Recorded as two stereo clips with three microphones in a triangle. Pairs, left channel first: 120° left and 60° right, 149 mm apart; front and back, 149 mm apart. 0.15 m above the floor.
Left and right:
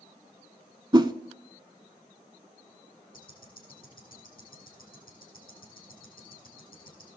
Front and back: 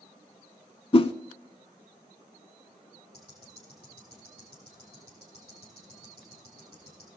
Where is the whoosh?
20° right, 0.5 m.